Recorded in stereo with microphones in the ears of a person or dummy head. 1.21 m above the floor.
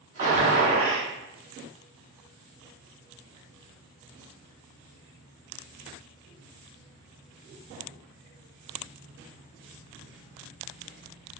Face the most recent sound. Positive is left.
turn(degrees=-45)  # may be behind; listen again after turning